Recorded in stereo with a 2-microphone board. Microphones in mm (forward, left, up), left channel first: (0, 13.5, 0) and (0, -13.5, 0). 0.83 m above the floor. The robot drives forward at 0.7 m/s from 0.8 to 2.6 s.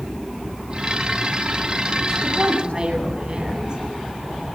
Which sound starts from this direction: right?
A woman speaking, at 2.2 s.